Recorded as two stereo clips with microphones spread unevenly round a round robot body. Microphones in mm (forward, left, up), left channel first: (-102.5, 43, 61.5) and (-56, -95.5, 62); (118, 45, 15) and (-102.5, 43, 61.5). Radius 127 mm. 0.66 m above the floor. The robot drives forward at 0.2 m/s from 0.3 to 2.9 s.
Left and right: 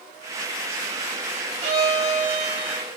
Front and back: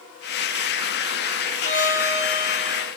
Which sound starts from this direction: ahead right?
A violin, at 1.6 s.